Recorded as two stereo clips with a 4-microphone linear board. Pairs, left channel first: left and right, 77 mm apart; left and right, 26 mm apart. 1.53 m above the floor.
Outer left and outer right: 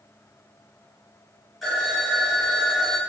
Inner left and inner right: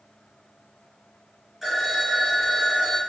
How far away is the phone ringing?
About 1.2 m.